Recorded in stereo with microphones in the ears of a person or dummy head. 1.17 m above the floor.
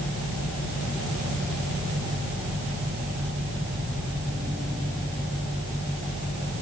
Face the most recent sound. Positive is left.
No sound to turn to.